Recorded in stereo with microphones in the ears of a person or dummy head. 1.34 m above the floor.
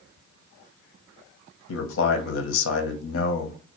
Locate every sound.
1.7 s a man speaking: 80° left, 0.9 m